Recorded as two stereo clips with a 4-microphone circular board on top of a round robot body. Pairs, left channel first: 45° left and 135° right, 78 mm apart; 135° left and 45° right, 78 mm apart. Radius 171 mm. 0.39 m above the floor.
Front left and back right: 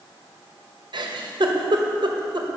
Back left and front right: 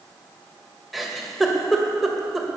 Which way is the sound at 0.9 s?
135° right.